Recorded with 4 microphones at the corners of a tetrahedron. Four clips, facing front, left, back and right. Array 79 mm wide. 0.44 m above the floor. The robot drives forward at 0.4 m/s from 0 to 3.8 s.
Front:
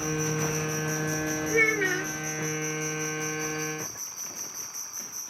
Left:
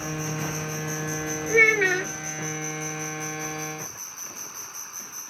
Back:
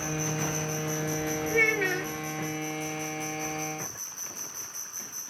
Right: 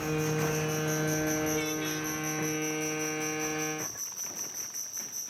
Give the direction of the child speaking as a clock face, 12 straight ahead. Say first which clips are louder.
Left 13 dB, front 1 dB; 9 o'clock.